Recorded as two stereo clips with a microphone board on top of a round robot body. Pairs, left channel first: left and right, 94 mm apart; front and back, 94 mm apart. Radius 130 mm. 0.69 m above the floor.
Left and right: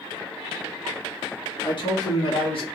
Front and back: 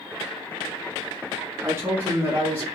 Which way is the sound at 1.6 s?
120° left.